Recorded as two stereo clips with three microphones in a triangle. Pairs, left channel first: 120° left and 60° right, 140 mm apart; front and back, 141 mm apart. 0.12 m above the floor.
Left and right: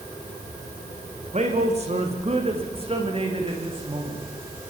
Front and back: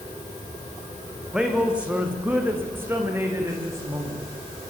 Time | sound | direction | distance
1.2 | a man speaking | 95° right | 6 m